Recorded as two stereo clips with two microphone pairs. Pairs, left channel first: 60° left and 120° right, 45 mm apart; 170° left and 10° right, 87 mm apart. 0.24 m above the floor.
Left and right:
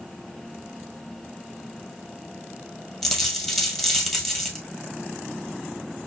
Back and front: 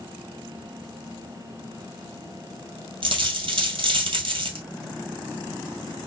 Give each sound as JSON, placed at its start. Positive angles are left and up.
{"t": 3.0, "sound": "a dropped coin", "azimuth_deg": -25, "distance_m": 1.1}